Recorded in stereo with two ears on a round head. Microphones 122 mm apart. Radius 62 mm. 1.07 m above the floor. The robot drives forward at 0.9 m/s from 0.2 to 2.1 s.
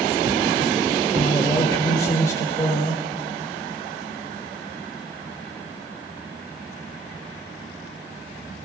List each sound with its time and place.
1.1 s a man speaking: 25° left (ahead or behind), 2.5 m; by 3.0 s 20° left (ahead or behind), 3.5 m